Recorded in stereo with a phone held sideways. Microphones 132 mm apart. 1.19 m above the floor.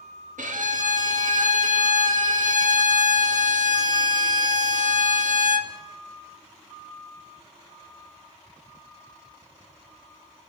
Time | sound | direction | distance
0.4 | a violin | 80° right | 1.2 m